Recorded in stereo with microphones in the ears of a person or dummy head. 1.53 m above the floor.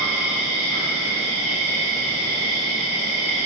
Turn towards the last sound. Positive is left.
turn(degrees=-25)  # may be behind; listen again after turning